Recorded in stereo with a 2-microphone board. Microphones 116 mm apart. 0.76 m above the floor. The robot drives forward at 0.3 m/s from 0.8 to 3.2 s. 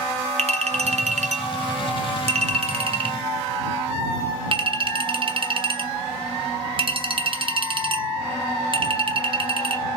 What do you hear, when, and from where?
0.4 s a clink: 65° right (ahead or behind), 0.6 m; by 9.9 s 45° right (ahead or behind), 0.8 m